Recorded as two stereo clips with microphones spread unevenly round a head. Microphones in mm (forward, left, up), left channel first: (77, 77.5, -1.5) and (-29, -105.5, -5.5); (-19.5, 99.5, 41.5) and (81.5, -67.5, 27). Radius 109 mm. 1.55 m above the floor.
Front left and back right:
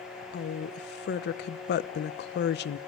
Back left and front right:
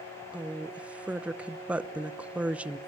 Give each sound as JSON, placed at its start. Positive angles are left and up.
{"t": 0.3, "sound": "a woman speaking", "azimuth_deg": 25, "distance_m": 0.9}